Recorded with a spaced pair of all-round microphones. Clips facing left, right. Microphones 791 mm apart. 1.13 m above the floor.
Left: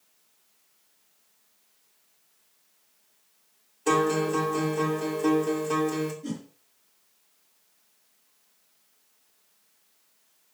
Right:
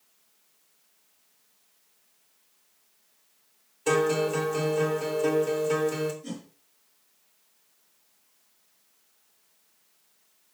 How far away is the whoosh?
About 4 m.